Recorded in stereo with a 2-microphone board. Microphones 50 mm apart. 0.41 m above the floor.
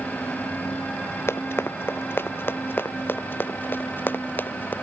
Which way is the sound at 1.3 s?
55° left (ahead or behind).